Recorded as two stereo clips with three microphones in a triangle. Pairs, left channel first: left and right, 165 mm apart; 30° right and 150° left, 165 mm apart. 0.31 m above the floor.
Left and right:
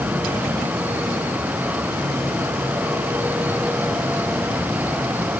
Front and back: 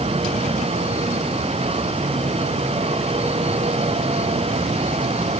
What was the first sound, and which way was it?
Only background noise.